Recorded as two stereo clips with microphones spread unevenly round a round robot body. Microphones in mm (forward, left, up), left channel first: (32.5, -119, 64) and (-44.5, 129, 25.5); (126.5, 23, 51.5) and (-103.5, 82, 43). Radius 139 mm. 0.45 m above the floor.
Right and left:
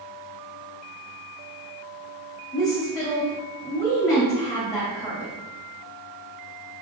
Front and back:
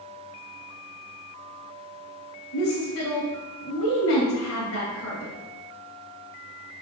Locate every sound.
2.5 s a woman speaking: 10° left, 3 m